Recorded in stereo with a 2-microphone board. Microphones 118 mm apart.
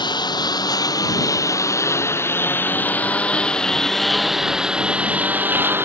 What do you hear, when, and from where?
0.0 s a lawn mower: 40° left (ahead or behind); by 5.9 s 20° right (ahead or behind)